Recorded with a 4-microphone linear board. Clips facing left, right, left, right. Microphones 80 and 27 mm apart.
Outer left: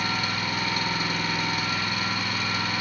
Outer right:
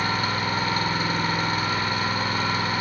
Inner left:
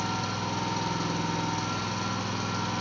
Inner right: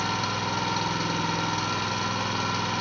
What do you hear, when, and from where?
0.0 s an engine running: 40° right (ahead or behind), 1.9 m